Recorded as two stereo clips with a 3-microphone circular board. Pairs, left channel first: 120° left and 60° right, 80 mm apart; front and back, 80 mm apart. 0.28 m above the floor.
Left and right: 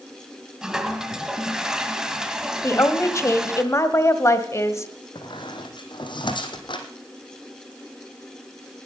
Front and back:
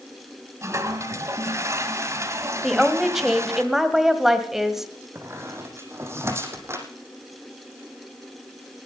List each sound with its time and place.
0.6 s a toilet flushing: 140° right, 1.4 m
2.6 s a woman speaking: 95° left, 1.3 m
5.2 s a squeak: 125° left, 1.9 m